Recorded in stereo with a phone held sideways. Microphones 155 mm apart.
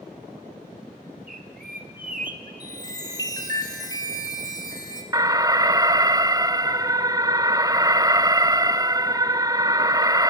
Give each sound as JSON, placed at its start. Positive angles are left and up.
{"t": 1.3, "sound": "a bird", "side_deg": -65, "distance_m": 1.6}
{"t": 2.6, "sound": "a chime", "side_deg": 25, "distance_m": 3.0}
{"t": 5.1, "sound": "an alarm", "side_deg": -25, "distance_m": 0.6}